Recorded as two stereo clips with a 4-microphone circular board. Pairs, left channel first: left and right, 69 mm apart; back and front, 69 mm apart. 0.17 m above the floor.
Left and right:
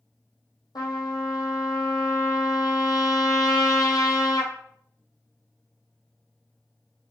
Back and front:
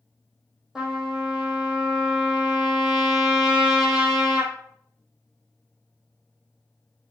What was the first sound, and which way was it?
A trumpet, 80° left.